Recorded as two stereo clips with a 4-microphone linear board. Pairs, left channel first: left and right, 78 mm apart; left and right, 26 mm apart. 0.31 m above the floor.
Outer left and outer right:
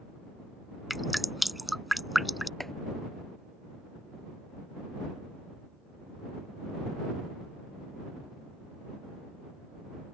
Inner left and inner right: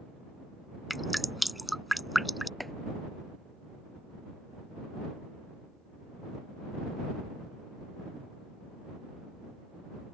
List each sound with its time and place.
0.9 s dripping: centre (ahead or behind)
2.6 s chopping: 5° left (ahead or behind)